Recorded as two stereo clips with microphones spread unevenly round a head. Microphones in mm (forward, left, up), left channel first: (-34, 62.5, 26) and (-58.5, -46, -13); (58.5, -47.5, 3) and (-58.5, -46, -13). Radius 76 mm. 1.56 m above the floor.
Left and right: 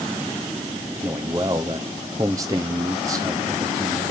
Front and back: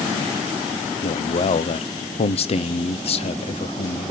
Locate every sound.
1.0 s a man speaking: 35° right, 0.7 m